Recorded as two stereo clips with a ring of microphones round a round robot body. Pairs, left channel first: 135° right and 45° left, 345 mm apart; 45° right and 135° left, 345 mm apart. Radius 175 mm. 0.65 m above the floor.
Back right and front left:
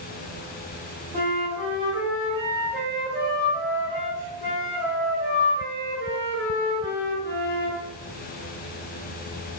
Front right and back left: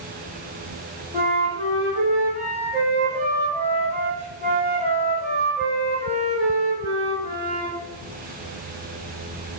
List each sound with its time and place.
1.1 s a flute: 75° left, 1.4 m